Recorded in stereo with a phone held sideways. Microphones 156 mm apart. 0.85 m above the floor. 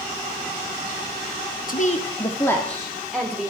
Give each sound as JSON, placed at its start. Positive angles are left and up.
{"t": 1.7, "sound": "a woman speaking", "side_deg": 60, "distance_m": 0.9}